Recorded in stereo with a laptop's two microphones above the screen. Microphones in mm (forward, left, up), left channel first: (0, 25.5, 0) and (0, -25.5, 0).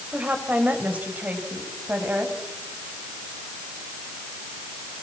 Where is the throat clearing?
No throat clearing in this recording.